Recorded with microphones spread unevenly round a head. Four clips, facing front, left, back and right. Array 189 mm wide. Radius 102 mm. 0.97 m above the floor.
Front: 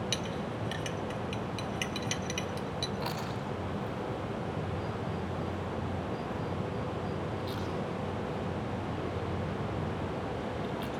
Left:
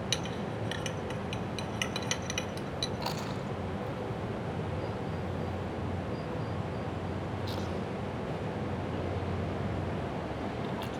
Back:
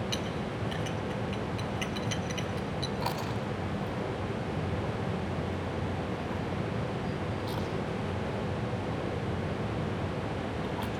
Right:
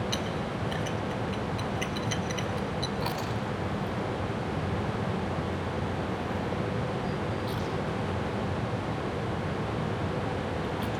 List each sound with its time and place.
0.1 s a clink: 45° left, 2.5 m
3.0 s chewing: 150° left, 5.5 m